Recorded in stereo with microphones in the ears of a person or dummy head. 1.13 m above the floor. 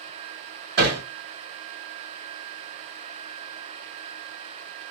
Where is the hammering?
55° right (ahead or behind), 2 m.